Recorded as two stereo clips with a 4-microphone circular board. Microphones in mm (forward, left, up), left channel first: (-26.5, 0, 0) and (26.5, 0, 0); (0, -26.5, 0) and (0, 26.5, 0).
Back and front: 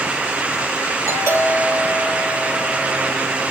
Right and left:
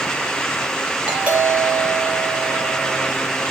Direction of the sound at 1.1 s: 20° left.